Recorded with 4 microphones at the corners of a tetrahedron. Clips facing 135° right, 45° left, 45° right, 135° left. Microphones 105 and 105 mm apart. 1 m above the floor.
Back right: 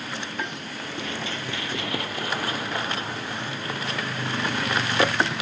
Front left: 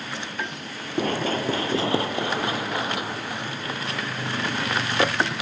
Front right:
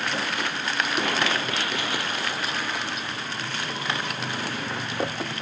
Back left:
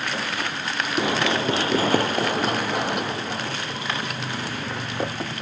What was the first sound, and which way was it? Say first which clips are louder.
Running footsteps: front left 10 dB, back left 6 dB; 60° left.